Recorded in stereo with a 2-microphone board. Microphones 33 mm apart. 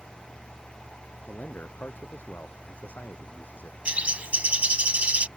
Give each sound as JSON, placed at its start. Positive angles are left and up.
{"t": 1.3, "sound": "a man speaking", "side_deg": 75}
{"t": 3.9, "sound": "a bird", "side_deg": -40}